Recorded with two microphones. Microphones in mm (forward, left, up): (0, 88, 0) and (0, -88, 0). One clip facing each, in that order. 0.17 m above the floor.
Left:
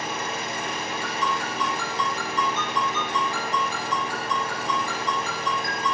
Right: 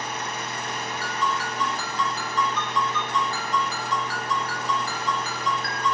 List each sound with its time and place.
0.0 s an engine running: 65° left (ahead or behind), 1.9 m
1.0 s a ringtone: 25° left (ahead or behind), 2.5 m